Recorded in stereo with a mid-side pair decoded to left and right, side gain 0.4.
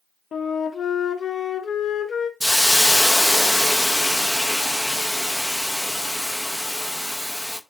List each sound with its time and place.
0.3 s a flute: 55° left, 0.6 m
2.4 s a hiss: 5° left, 0.6 m